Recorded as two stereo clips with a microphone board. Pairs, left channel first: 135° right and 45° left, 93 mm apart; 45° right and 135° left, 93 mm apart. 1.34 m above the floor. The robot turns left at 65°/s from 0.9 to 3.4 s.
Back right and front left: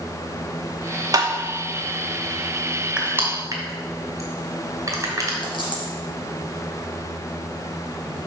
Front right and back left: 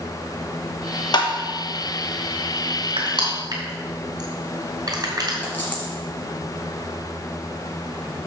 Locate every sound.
1.1 s tapping: 5° right, 1.1 m; by 1.3 s 15° right, 1.1 m
3.0 s crushing: 120° left, 3 m; by 5.3 s 95° left, 3 m
5.4 s a dropped coin: 115° right, 2.5 m